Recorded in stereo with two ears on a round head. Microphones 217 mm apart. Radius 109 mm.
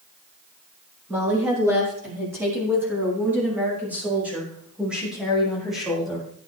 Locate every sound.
1.1 s a woman speaking: 10° right (ahead or behind), 9.5 m; by 6.3 s centre (ahead or behind), 5.5 m